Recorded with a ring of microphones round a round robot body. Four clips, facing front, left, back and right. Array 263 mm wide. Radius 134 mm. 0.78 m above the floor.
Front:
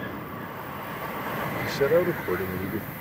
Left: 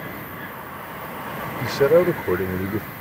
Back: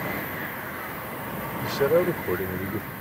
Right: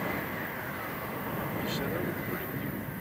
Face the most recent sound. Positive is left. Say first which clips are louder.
# left 21 dB, back 1 dB
turn(degrees=90)